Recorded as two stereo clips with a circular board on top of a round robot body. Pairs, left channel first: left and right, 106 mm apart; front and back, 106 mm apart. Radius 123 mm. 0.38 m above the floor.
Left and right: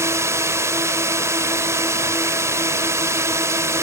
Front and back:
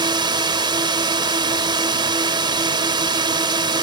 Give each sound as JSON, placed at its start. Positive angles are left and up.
{"t": 0.0, "sound": "a drone", "azimuth_deg": -145}